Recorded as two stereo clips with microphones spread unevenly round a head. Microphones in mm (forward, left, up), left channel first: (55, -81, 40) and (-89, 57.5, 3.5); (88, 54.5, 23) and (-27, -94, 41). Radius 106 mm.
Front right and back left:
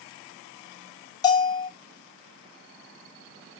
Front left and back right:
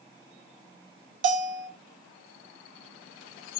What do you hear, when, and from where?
1.2 s a bell: 110° right, 1.8 m